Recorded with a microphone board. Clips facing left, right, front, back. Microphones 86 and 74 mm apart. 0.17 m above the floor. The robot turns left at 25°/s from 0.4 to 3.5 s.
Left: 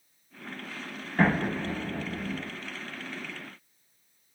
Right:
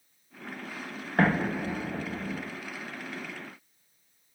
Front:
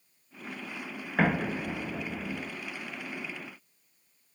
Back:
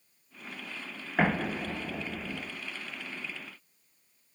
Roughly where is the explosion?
Right.